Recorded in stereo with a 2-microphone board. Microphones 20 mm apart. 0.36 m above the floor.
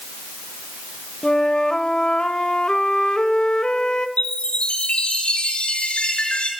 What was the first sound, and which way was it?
A flute, 45° left (ahead or behind).